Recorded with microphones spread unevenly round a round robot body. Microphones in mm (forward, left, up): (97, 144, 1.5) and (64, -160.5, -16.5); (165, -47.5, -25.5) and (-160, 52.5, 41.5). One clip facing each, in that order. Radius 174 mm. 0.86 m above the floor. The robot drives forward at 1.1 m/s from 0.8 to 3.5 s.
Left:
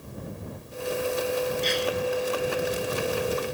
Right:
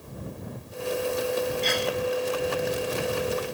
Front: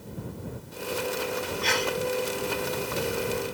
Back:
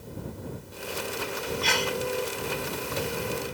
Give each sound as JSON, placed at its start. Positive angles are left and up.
{"t": 1.6, "sound": "a sneeze", "azimuth_deg": -145}